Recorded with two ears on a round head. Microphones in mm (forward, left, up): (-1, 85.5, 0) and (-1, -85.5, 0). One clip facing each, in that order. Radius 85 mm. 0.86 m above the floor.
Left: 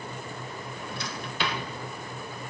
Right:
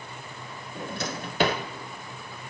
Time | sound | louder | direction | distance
0.8 | a drawer | right 8 dB | 40° right (ahead or behind) | 1.0 m